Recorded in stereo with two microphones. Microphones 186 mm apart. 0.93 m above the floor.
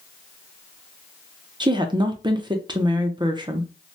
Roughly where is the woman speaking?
Right.